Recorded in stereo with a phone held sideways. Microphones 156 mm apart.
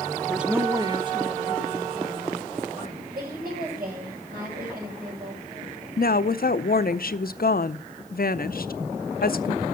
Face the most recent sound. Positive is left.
turn(degrees=70)  # may be behind; listen again after turning